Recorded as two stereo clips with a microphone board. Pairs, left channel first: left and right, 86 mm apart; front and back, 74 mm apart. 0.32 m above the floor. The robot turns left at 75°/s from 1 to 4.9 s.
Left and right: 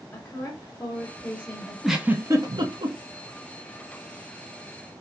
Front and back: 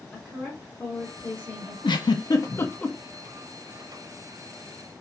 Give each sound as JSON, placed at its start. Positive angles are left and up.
{"t": 0.1, "sound": "a woman speaking", "azimuth_deg": 60, "distance_m": 1.0}
{"t": 1.8, "sound": "a giggle", "azimuth_deg": 0, "distance_m": 0.5}